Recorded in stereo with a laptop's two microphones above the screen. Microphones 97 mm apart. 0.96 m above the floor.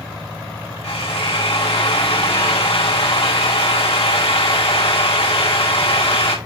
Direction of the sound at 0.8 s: 80° left.